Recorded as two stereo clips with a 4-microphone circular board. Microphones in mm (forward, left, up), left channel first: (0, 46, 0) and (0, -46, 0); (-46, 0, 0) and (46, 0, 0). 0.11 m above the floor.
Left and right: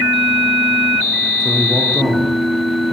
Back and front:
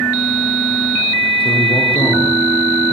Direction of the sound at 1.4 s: 175° right.